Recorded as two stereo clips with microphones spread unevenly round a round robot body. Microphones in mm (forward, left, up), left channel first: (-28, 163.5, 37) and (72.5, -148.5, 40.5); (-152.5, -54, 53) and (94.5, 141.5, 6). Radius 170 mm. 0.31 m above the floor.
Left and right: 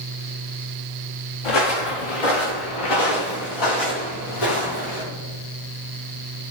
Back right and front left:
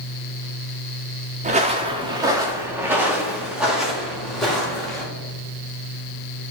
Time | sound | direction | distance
1.4 | footsteps | 105° left | 1.4 m